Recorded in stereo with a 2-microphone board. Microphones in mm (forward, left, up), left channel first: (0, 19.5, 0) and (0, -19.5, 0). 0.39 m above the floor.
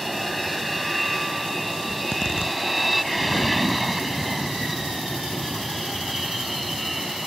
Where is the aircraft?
Centre (ahead or behind).